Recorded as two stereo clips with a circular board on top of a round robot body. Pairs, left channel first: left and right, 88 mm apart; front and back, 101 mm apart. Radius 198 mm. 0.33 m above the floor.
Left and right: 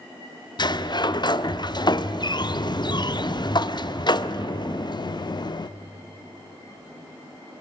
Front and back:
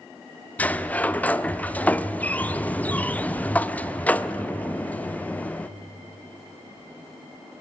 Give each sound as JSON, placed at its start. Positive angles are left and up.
{"t": 0.6, "sound": "a sliding door", "azimuth_deg": 75, "distance_m": 0.7}